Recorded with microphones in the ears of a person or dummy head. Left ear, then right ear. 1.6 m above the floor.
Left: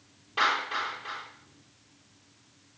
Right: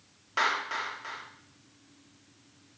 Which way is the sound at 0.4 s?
60° right (ahead or behind).